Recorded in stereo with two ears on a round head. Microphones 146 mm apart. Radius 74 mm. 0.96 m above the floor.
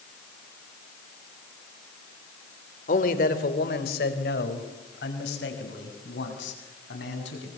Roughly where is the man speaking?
Left.